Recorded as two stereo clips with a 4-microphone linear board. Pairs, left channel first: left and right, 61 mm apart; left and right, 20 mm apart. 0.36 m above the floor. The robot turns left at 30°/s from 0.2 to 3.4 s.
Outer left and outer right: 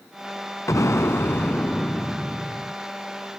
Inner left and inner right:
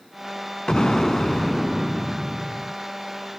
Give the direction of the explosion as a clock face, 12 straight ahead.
10 o'clock.